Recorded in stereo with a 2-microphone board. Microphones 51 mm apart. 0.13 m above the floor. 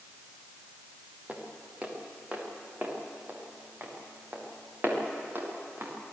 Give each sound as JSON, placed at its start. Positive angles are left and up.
{"t": 1.3, "sound": "footsteps", "side_deg": -25, "distance_m": 4.5}